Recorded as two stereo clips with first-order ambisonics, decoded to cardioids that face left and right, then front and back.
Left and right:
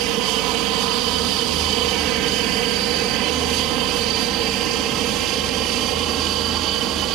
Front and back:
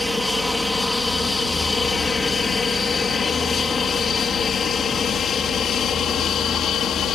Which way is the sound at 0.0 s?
90° right.